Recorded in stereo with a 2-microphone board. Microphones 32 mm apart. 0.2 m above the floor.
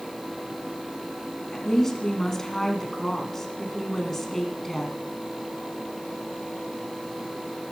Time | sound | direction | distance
1.5 | a woman speaking | 10° left (ahead or behind) | 2 m